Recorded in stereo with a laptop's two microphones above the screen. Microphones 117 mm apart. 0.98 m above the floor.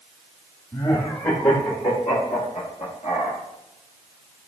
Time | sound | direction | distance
0.7 | laughter | 30° left (ahead or behind) | 1.8 m